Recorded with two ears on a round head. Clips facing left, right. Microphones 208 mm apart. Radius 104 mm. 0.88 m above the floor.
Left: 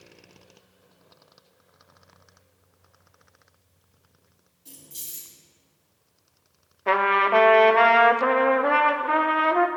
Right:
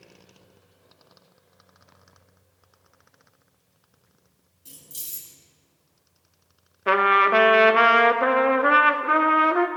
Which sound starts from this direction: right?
Keys jangling, at 4.7 s.